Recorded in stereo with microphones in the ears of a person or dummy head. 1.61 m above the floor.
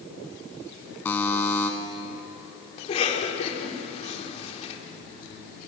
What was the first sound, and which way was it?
A buzzer, 15° left (ahead or behind).